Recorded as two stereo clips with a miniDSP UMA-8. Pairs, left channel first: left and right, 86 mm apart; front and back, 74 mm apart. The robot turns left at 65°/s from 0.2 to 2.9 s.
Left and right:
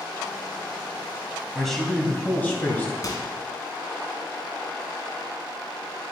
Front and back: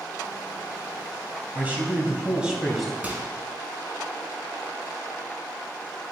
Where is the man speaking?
Straight behind, 1.6 m; by 2.9 s 95° left, 1.6 m.